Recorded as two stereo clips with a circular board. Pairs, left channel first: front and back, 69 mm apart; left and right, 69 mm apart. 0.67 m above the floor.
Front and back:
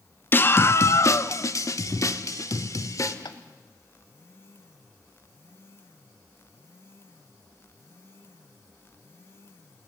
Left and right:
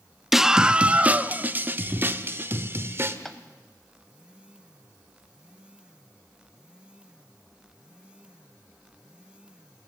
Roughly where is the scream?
Ahead.